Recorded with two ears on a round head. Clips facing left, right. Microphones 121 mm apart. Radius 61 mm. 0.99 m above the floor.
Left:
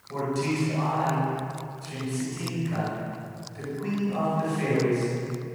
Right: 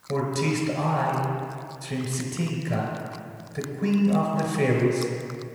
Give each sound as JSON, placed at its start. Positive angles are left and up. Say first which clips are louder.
{"t": 0.1, "sound": "a man speaking", "louder": "right 2 dB", "side_deg": -65, "distance_m": 5.0}